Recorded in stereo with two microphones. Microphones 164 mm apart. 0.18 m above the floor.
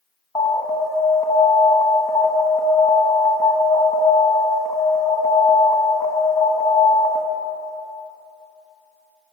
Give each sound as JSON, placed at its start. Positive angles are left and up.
{"t": 0.3, "sound": "an alarm", "side_deg": 20, "distance_m": 1.0}